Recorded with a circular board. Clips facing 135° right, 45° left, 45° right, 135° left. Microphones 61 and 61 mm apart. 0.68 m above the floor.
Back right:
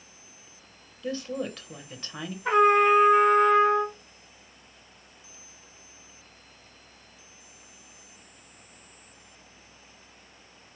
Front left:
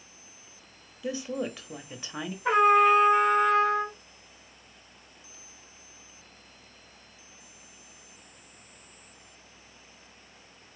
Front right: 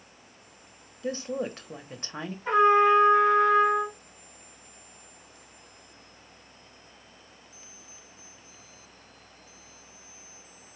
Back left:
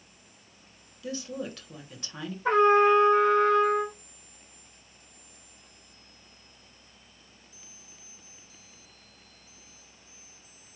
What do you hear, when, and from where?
1.0 s a woman speaking: 25° right, 0.9 m
2.5 s a trumpet: 120° left, 1.8 m